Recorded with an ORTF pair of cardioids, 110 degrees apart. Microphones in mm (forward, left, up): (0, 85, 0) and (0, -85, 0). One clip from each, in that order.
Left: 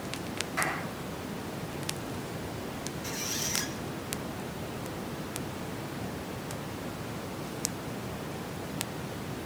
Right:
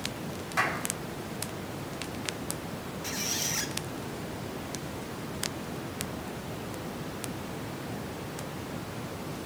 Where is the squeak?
15° right, 1.5 m.